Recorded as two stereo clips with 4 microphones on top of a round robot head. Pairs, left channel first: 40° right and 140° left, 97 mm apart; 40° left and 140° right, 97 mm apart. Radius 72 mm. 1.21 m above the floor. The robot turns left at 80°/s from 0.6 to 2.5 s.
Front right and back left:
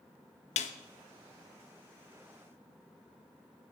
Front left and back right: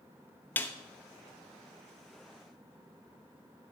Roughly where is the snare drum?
Ahead right.